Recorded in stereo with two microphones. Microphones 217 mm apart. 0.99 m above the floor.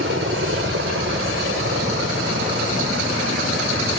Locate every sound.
0.0 s a helicopter: 65° right (ahead or behind)